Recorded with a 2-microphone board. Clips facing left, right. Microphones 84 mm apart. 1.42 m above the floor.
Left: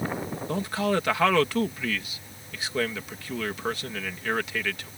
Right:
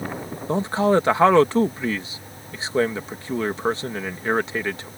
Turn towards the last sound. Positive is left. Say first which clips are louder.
# right 8 dB
turn(degrees=-30)  # may be behind; listen again after turning